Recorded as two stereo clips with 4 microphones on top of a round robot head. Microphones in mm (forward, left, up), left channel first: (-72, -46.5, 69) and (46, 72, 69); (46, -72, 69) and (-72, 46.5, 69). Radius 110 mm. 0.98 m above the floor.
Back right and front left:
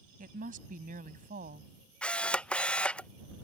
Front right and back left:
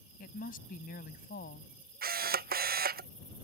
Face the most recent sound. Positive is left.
turn(degrees=145)